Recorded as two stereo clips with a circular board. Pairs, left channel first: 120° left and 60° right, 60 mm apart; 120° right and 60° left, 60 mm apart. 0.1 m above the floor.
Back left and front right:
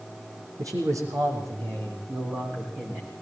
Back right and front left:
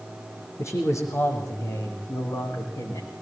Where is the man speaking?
80° right, 4.5 m; by 3.1 s 105° right, 7 m.